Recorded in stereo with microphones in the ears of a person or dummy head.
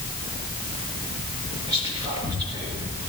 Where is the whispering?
25° right (ahead or behind), 1.8 m.